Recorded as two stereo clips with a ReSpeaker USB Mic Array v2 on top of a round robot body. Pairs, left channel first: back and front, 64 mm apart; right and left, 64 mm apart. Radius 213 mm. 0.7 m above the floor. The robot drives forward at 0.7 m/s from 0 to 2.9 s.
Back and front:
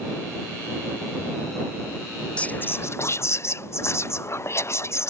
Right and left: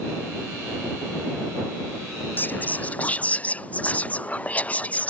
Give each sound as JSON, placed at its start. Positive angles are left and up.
{"t": 2.4, "sound": "whispering", "azimuth_deg": -125}